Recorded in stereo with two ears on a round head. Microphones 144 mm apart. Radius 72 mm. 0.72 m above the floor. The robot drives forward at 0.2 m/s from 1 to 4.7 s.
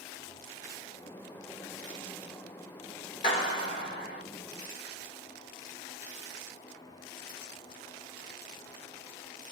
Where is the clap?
40° left (ahead or behind), 2 m; by 4.2 s 35° left (ahead or behind), 2 m.